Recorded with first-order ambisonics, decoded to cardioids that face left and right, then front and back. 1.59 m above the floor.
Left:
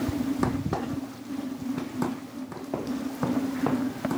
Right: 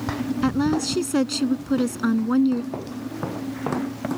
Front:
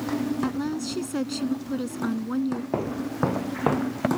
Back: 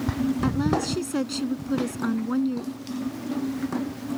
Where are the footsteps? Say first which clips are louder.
Even, front 5 dB; straight ahead; by 4.1 s 5° right.